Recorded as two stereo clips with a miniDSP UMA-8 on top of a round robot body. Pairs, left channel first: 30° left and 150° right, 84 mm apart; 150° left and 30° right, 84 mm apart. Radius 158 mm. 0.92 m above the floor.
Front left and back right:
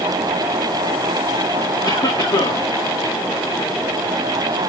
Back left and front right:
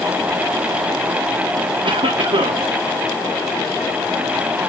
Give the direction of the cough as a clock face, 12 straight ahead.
1 o'clock.